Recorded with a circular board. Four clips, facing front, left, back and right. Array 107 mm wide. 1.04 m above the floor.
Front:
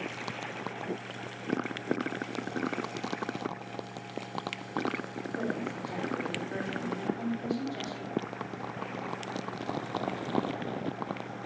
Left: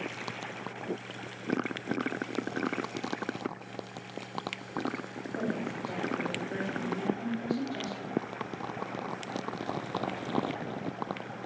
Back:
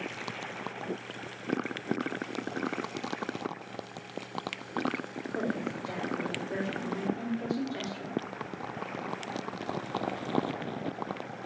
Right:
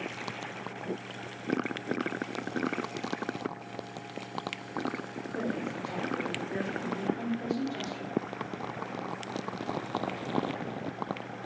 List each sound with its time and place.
5.3 s a woman speaking: 155° right, 3.5 m